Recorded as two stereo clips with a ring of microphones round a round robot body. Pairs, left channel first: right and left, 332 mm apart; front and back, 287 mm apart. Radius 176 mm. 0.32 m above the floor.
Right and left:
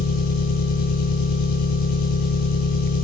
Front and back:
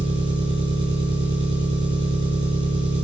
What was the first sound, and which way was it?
An engine running, 105° right.